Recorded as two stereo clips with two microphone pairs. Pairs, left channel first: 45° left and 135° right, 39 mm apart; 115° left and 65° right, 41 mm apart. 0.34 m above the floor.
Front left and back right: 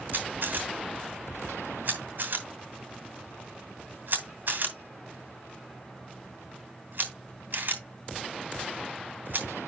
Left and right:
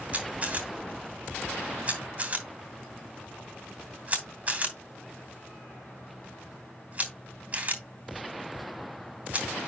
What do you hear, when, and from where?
0.1 s a camera shutter: 115° right, 2.5 m